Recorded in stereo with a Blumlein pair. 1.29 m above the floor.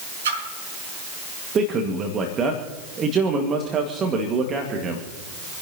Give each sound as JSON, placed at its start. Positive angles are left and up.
{"t": 0.2, "sound": "a splash", "azimuth_deg": -65, "distance_m": 4.0}
{"t": 1.6, "sound": "a man speaking", "azimuth_deg": -25, "distance_m": 1.9}